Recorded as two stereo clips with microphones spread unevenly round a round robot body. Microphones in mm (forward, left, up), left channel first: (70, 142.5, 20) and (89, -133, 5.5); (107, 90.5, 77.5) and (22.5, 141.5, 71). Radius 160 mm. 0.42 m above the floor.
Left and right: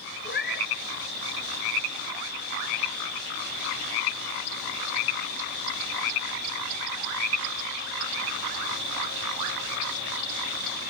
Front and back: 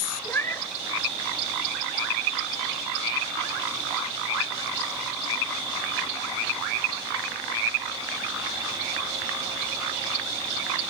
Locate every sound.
0.2 s a cat meowing: 40° left, 2.5 m